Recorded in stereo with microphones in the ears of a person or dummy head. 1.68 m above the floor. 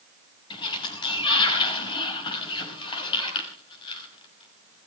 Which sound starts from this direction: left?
A sliding door, at 0.5 s.